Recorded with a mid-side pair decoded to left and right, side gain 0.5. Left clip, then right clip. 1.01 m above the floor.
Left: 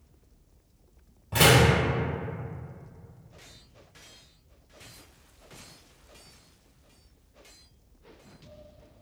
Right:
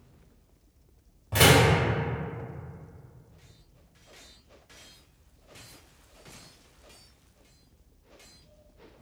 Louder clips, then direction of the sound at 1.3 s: Even; 15° right.